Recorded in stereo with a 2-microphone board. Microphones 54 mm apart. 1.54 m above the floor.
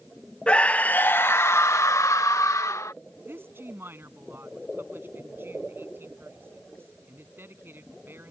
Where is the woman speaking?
45° right (ahead or behind).